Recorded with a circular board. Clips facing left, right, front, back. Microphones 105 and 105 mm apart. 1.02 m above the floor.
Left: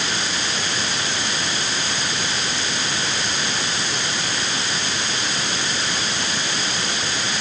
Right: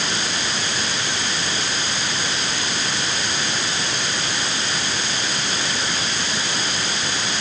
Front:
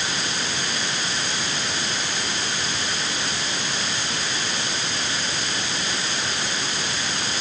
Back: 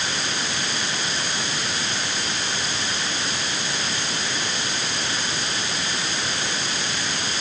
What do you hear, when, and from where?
Only background noise.